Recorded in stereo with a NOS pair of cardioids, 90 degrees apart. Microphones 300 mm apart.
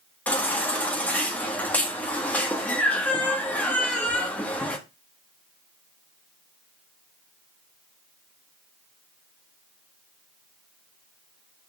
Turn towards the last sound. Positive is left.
turn(degrees=5)